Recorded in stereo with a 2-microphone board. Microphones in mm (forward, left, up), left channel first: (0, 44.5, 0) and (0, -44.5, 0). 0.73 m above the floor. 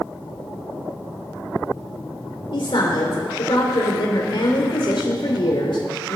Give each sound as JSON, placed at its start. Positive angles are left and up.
{"t": 2.5, "sound": "a woman speaking", "side_deg": 70, "distance_m": 2.5}